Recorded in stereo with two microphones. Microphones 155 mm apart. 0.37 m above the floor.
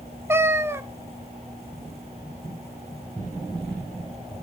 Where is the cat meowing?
15° right (ahead or behind), 0.5 m.